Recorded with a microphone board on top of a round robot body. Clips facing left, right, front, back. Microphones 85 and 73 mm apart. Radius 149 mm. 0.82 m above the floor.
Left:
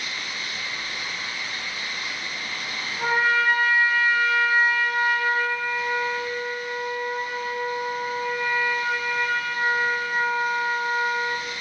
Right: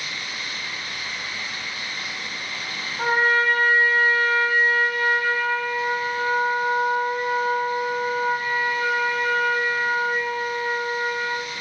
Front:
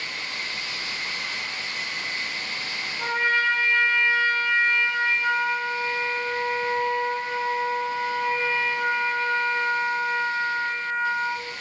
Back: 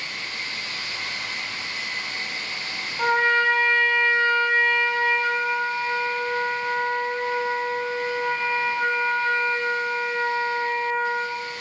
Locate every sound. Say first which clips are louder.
3.0 s a trumpet: right 1 dB, back 4 dB; 140° right, 2.5 m